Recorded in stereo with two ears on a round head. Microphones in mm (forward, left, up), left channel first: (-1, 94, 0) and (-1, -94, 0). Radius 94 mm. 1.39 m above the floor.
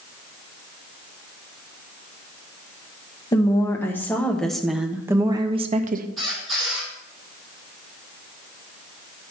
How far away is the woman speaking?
About 1.7 m.